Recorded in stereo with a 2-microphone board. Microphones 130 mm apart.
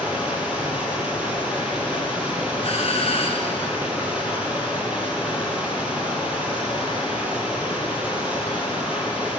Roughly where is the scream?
I don't hear a scream.